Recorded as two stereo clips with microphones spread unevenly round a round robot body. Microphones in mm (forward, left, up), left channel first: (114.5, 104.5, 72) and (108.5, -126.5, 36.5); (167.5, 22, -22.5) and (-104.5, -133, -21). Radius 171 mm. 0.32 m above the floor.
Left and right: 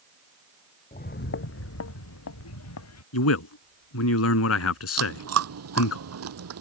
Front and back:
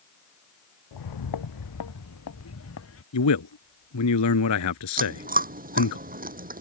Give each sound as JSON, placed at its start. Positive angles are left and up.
{"t": 0.9, "sound": "footsteps", "azimuth_deg": 35}
{"t": 3.1, "sound": "a man speaking", "azimuth_deg": 75}
{"t": 5.0, "sound": "chewing", "azimuth_deg": -85}